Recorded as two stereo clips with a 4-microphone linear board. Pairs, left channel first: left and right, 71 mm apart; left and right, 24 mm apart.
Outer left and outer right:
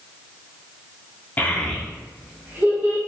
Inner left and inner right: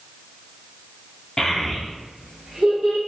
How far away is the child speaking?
About 0.5 m.